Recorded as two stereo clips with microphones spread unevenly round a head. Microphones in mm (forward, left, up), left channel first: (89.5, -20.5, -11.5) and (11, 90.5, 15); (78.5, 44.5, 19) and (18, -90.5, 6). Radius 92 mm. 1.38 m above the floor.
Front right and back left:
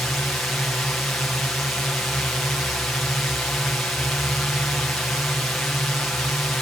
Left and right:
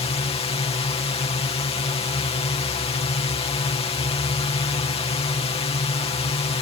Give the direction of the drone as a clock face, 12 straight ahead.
11 o'clock.